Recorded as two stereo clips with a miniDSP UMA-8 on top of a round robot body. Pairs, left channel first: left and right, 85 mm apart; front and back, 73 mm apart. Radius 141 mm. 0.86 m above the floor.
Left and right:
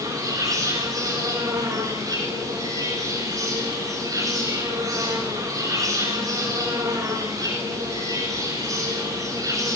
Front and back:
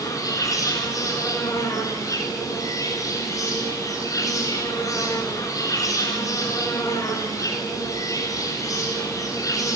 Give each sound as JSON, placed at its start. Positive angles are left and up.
{"t": 0.0, "sound": "an insect", "azimuth_deg": -40, "distance_m": 8.5}